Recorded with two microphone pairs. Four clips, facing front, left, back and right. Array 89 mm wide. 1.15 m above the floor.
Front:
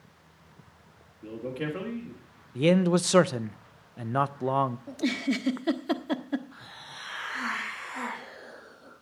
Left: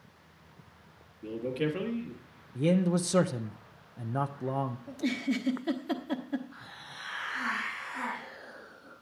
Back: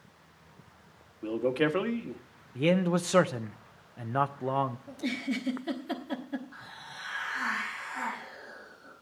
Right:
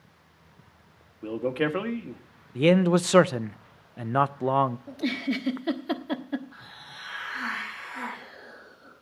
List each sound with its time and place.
1.2 s a man speaking: 125° right, 1.4 m
2.5 s a man speaking: 70° right, 0.5 m
4.9 s a giggle: 35° right, 1.1 m
6.5 s a hiss: 30° right, 7 m